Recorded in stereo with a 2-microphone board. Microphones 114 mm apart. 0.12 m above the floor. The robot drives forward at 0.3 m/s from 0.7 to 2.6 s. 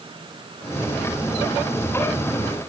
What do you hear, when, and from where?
Only background noise.